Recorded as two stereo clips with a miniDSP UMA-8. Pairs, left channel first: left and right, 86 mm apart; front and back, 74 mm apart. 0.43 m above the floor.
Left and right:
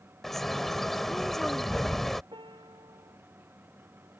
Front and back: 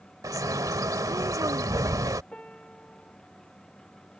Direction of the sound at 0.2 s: 175° left.